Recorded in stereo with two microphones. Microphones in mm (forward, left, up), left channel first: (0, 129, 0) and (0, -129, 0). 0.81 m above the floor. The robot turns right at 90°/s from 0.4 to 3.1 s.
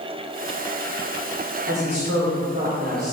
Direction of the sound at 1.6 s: 135° right.